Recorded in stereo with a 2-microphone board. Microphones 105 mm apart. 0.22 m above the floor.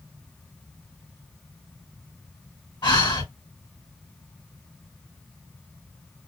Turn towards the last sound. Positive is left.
turn(degrees=50)  # may be behind; listen again after turning